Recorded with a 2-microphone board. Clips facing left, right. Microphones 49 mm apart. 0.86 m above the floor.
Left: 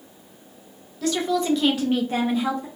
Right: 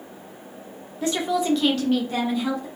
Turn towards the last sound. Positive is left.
turn(degrees=45)  # may be behind; listen again after turning